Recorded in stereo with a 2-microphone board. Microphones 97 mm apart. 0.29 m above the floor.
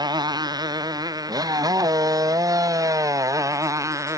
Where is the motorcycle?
45° right (ahead or behind); by 4.2 s 30° right (ahead or behind).